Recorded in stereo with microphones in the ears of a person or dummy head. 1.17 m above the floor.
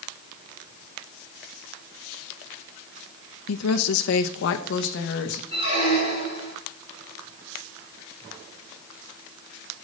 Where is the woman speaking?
80° left, 0.6 m; by 5.4 s 55° left (ahead or behind), 1.3 m.